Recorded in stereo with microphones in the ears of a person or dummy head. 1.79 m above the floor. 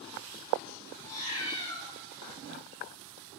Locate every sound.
1.0 s a cat meowing: 30° left (ahead or behind), 3 m